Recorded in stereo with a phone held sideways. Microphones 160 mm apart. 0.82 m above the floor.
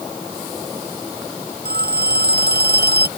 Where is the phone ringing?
80° right.